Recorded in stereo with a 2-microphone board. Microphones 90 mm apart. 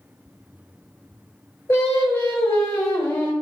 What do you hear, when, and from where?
1.7 s singing: 30° left (ahead or behind), 1.0 m